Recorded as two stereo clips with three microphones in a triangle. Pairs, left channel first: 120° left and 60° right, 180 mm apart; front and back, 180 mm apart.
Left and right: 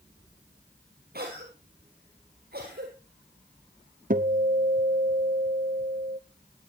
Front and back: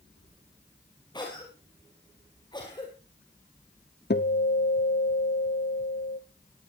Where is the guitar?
20° right, 1.3 m.